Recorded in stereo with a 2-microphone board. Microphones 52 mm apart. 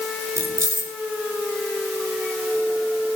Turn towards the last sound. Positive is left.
turn(degrees=-55)  # may be behind; listen again after turning